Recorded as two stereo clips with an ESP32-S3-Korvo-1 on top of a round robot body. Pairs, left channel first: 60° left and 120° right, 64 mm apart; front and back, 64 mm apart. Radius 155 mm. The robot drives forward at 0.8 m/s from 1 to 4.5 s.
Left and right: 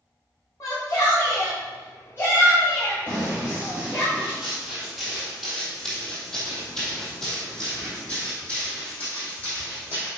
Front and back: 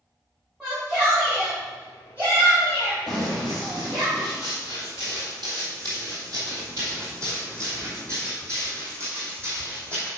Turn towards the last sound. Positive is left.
turn(degrees=120)